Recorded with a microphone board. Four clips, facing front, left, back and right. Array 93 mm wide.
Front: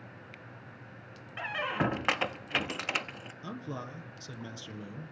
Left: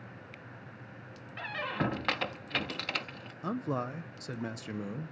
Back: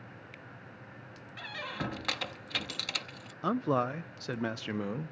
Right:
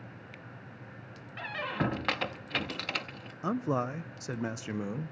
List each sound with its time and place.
1.4 s a squeak: 5° right, 0.6 m
3.4 s a man speaking: 165° right, 0.7 m